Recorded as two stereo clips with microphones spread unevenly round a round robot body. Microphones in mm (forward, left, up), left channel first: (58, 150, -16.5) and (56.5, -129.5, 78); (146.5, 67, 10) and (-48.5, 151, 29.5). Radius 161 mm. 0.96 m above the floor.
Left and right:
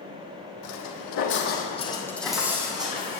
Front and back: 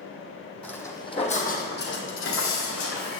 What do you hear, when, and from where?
0.6 s footsteps: 65° left, 2 m; by 3.2 s 30° right, 3 m